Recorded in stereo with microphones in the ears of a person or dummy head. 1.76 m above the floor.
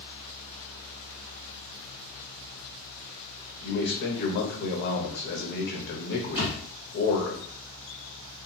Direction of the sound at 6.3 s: 15° right (ahead or behind).